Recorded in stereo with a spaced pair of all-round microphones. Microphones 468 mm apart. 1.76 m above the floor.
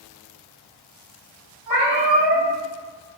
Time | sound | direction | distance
1.7 | a cat meowing | 45° right (ahead or behind) | 1.5 m